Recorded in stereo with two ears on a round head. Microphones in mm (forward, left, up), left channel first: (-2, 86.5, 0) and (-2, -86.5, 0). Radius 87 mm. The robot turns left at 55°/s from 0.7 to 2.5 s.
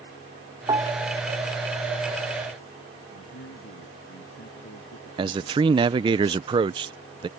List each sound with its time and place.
0.7 s a piano: 20° right (ahead or behind); by 1.2 s 5° left (ahead or behind)
3.1 s a man speaking: 75° left (ahead or behind)
5.2 s a man speaking: 25° right (ahead or behind)